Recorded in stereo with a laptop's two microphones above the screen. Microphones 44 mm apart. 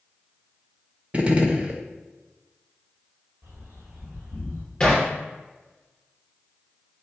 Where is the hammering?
20° left (ahead or behind), 3 m.